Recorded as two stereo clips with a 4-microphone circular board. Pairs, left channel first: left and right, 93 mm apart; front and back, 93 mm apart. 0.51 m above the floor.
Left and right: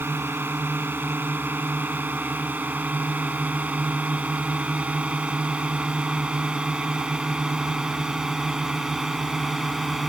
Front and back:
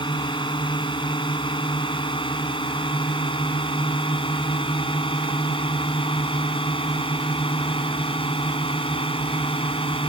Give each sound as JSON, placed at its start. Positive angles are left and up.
{"t": 0.0, "sound": "a drone", "azimuth_deg": -25}